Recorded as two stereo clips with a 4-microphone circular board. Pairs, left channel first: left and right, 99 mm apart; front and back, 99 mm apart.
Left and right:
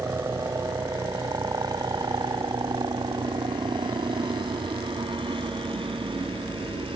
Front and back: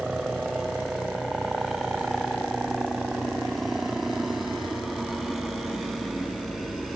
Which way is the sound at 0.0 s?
100° right.